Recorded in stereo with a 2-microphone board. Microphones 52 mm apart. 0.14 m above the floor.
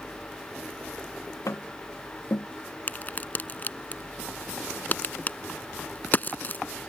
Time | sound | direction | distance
1.5 | tapping | 65° left (ahead or behind) | ?
2.9 | a crack | 35° left (ahead or behind) | ?